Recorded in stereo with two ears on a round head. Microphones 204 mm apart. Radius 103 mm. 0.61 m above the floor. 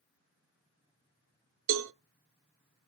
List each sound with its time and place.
1.7 s a cowbell: 60° right (ahead or behind), 0.6 m